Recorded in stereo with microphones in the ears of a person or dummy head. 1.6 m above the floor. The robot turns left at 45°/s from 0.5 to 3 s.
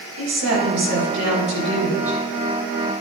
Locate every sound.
0.2 s a woman speaking: 100° right, 4.5 m; by 2.2 s straight behind, 4.5 m